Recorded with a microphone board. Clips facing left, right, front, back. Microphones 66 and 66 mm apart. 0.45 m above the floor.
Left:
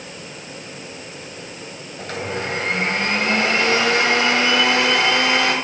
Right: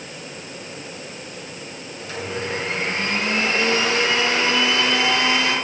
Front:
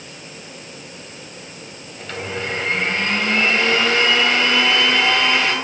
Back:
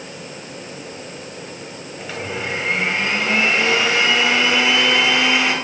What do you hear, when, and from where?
2.0 s a blender: 100° left, 2.5 m